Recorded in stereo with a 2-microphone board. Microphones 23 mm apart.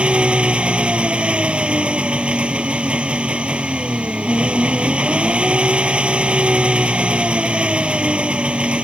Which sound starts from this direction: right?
An engine running, at 0.0 s.